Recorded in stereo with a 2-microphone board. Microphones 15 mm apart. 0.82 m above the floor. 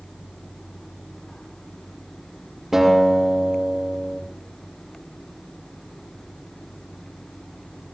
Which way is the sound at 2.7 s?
20° right (ahead or behind).